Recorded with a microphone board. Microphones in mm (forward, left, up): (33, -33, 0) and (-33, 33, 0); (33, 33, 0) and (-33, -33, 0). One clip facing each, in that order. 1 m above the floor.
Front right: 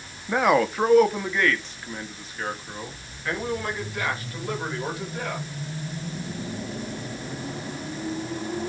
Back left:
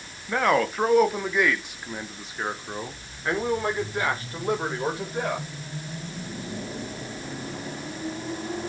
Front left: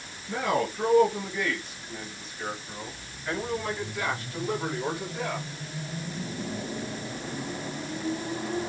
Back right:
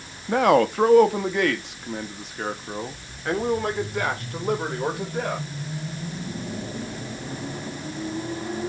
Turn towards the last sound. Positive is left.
turn(degrees=-165)